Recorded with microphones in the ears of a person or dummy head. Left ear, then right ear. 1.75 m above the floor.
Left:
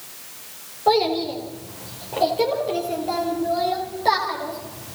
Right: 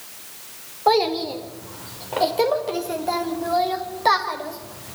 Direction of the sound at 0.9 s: 35° right (ahead or behind).